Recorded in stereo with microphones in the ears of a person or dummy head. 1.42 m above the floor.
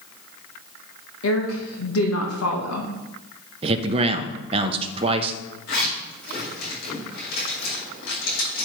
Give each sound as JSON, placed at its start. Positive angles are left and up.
{"t": 1.2, "sound": "a woman speaking", "side_deg": 80, "distance_m": 1.3}
{"t": 3.6, "sound": "a man speaking", "side_deg": -30, "distance_m": 0.8}
{"t": 5.7, "sound": "a zipper", "side_deg": 70, "distance_m": 4.5}